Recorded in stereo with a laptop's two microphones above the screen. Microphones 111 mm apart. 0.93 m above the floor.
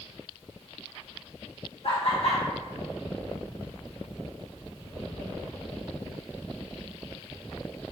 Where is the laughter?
60° left (ahead or behind), 1.7 m.